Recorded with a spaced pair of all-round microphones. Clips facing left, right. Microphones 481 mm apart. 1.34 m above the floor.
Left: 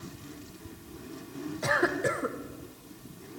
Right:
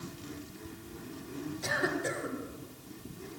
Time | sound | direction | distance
1.6 | a cough | 75° left (ahead or behind) | 1.3 m